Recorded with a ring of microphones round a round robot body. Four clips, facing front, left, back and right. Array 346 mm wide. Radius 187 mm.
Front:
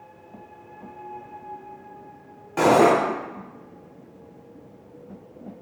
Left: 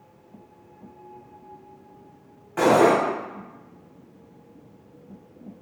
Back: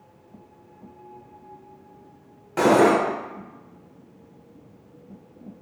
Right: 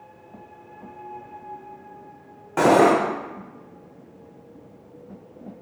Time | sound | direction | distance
2.6 | cutlery clinking | 105° right | 0.8 m